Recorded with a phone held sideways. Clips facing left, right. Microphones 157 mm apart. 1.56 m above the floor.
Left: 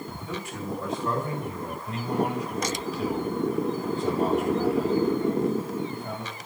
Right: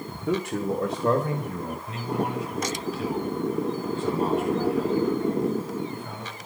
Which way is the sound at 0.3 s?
70° right (ahead or behind).